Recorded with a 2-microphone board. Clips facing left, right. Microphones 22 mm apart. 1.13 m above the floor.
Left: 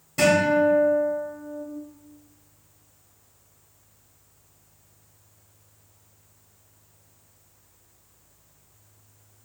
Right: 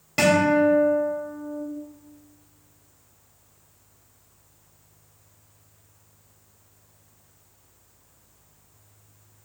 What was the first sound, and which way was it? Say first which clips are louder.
A guitar: right 1 dB; 70° right (ahead or behind).